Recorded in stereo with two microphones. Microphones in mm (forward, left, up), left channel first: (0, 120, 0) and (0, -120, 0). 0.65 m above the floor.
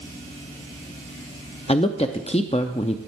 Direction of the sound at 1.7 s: 25° left (ahead or behind).